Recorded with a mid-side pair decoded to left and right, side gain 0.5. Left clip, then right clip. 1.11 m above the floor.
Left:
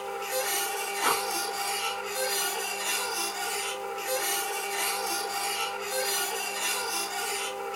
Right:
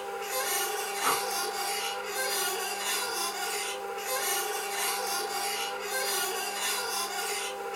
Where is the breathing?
35° left, 1.0 m.